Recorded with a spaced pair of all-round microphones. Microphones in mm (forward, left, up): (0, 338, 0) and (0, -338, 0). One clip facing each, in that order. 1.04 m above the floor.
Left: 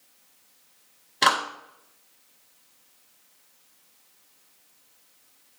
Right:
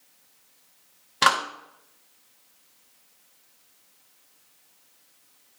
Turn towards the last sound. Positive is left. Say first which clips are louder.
# even
turn(degrees=-35)  # may be behind; listen again after turning